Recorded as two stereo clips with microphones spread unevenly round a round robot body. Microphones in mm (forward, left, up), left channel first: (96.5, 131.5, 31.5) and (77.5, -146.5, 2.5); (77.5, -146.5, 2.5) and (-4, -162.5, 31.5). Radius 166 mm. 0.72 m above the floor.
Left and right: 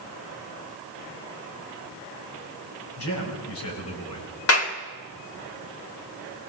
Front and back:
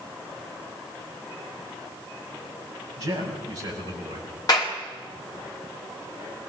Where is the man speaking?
135° left, 5 m.